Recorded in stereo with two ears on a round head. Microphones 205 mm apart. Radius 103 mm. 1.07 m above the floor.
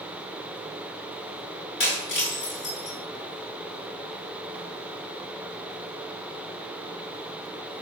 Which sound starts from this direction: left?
Breaking glass, at 1.8 s.